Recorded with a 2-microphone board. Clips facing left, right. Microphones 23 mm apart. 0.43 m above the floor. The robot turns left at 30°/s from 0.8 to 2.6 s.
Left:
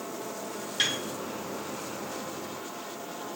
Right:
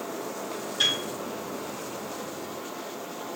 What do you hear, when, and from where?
0.8 s a piano: 45° left (ahead or behind), 1.3 m; by 1.0 s 40° left (ahead or behind), 1.3 m